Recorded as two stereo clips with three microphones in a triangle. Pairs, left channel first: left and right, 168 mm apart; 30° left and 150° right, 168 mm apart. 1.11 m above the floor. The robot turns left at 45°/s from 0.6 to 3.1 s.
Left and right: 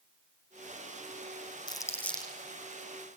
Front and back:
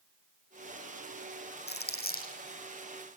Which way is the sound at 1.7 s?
30° left.